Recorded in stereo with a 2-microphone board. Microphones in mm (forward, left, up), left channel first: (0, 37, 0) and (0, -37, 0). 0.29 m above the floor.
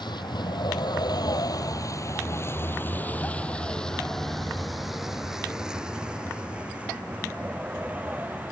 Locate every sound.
0.0 s a vehicle: 85° left; by 8.5 s 20° right (ahead or behind)